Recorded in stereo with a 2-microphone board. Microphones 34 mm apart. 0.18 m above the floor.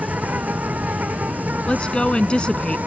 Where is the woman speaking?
30° left (ahead or behind).